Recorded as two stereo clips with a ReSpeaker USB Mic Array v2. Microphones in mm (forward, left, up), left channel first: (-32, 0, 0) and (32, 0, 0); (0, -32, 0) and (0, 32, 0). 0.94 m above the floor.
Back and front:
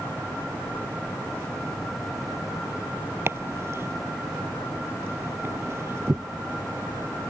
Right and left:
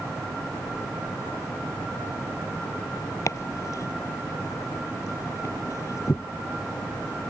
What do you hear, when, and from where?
3.3 s chopping: 50° right